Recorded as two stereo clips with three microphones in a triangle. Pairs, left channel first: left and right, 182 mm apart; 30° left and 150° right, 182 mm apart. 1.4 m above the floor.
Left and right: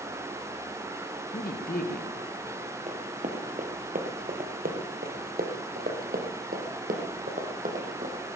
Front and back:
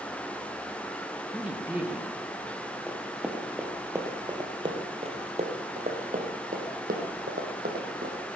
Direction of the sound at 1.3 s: 130° left.